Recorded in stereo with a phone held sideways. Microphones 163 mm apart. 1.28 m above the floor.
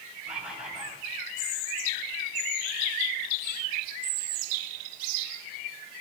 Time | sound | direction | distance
0.3 | a bird | 5° right (ahead or behind) | 7.5 m